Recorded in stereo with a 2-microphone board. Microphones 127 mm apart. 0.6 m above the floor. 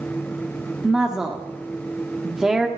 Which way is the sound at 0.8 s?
5° right (ahead or behind).